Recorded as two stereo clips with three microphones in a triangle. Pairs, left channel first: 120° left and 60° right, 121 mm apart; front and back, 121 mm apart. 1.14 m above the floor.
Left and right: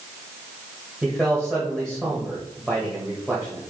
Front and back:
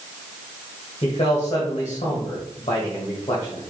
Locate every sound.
1.0 s a man speaking: 35° left, 1.4 m